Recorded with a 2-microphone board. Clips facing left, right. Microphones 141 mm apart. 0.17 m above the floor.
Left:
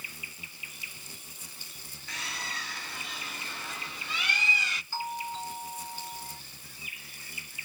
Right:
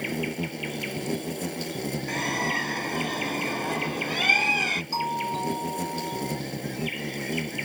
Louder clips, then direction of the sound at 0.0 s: Right 22 dB; 65° right (ahead or behind).